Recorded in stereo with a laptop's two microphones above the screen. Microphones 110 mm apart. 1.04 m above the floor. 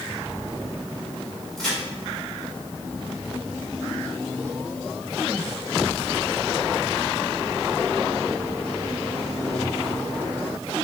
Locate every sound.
1.6 s a crack: 5° left (ahead or behind), 2.0 m